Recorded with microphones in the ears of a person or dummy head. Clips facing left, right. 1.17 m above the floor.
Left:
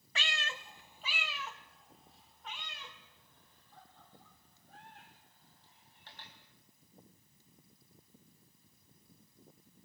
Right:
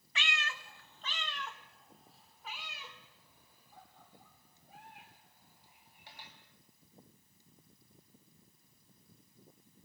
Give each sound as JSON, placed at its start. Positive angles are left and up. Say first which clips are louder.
{"t": 0.1, "sound": "a cat meowing", "louder": "even", "side_deg": 35, "distance_m": 0.7}